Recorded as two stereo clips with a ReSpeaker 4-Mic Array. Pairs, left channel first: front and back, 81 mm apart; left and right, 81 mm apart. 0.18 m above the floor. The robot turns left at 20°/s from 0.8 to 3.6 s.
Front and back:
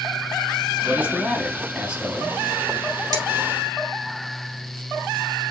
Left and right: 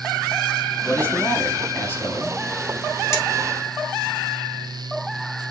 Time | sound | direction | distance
0.8 | a man speaking | 135° left | 1.4 m
3.1 | cutlery clinking | 140° left | 2.5 m